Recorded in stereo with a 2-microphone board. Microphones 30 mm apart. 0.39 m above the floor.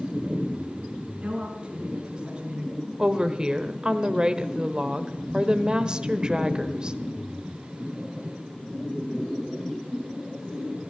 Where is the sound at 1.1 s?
35° right (ahead or behind), 5.5 m; by 2.9 s 25° right (ahead or behind), 4 m.